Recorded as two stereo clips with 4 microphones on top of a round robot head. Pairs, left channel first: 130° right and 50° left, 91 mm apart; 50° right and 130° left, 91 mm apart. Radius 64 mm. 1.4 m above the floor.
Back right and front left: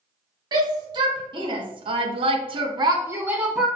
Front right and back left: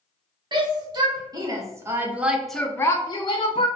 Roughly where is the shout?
Left.